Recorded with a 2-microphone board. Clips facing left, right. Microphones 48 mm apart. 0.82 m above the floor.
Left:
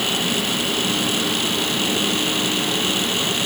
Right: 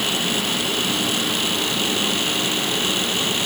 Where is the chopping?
No chopping in this recording.